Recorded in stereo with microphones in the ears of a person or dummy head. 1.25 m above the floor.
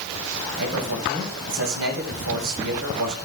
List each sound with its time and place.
0.6 s a man speaking: 80° right, 6.5 m